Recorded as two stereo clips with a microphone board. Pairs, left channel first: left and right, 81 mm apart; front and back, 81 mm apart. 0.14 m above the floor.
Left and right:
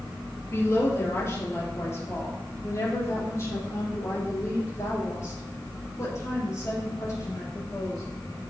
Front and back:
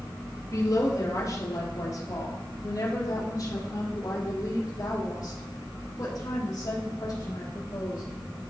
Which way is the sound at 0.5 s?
40° left.